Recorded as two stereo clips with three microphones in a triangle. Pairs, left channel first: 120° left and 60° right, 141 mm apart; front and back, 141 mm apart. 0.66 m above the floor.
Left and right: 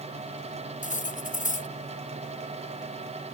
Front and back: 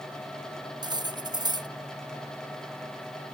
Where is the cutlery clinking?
120° left.